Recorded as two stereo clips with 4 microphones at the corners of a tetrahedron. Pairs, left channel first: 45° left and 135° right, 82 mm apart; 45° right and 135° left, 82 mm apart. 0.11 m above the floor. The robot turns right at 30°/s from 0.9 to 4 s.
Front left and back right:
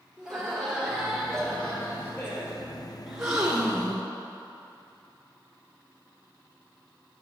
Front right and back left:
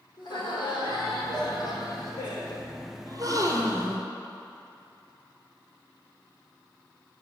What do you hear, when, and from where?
0.2 s laughter: 50° right, 3 m; by 2.7 s straight ahead, 3 m
3.1 s a gasp: 140° left, 1.0 m; by 4.1 s 165° left, 1.0 m